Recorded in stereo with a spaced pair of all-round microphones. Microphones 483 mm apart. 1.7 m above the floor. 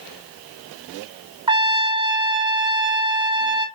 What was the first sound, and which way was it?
A trumpet, 10° right (ahead or behind).